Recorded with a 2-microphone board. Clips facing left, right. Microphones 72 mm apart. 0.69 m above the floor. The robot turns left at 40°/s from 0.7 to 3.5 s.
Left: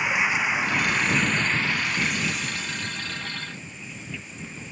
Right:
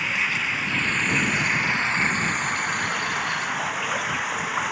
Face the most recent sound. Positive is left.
turn(degrees=-95)